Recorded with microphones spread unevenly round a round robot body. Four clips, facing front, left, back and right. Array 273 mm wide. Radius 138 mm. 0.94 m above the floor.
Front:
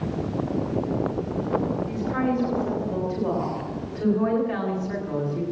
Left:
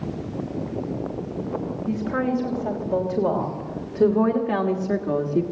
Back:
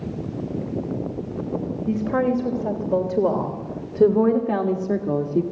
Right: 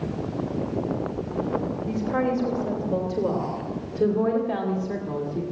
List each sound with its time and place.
1.9 s a woman speaking: 175° left, 4 m; by 5.4 s 150° left, 2 m